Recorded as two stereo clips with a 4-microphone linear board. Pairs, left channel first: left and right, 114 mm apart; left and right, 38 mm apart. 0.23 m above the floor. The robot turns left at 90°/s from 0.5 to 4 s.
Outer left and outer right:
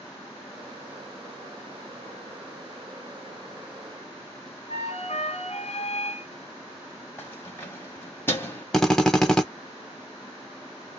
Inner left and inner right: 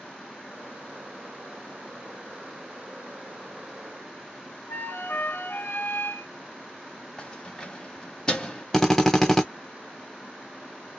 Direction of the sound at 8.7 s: 5° left (ahead or behind).